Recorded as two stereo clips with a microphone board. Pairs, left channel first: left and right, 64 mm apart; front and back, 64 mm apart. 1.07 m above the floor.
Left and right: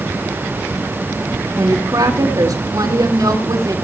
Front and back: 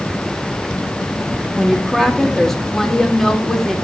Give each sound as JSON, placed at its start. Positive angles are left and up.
{"t": 1.5, "sound": "a woman speaking", "azimuth_deg": -85, "distance_m": 2.5}